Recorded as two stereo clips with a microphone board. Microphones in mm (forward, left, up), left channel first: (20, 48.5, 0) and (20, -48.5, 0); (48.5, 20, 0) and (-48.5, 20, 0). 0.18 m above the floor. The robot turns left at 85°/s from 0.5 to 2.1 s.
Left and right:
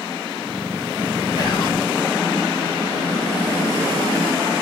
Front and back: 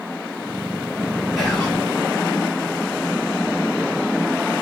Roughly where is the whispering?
Left.